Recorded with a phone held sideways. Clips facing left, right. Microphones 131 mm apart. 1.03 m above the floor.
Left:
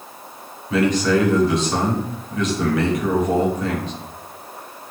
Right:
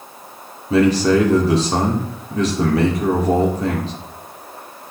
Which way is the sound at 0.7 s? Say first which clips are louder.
Right 4 dB; 35° right (ahead or behind).